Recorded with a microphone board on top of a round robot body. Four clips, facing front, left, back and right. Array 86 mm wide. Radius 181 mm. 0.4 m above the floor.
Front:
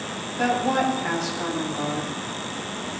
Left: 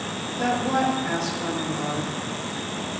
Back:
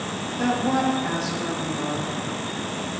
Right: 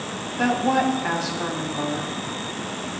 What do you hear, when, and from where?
0.4 s a woman speaking: 70° right, 1.8 m